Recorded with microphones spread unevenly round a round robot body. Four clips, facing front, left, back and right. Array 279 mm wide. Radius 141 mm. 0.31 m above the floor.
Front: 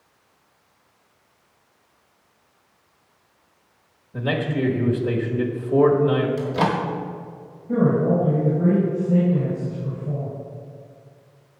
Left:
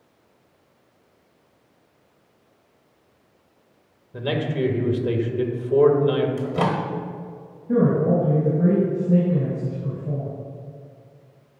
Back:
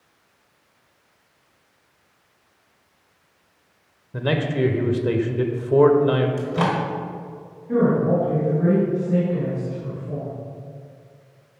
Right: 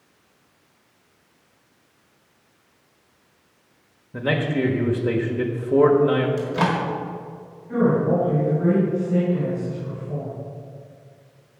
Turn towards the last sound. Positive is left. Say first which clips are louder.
# left 1 dB, back 1 dB
turn(degrees=75)